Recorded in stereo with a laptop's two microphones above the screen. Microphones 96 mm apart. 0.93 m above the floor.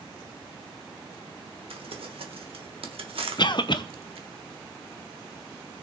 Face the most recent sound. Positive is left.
turn(degrees=50)  # may be behind; listen again after turning